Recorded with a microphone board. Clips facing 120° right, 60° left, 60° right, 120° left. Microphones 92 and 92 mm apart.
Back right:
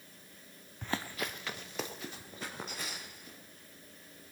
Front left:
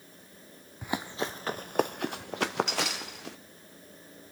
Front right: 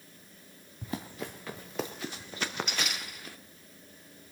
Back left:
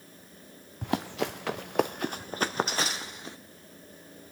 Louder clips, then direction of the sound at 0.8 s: Front left 4 dB, back left 8 dB; 140° left.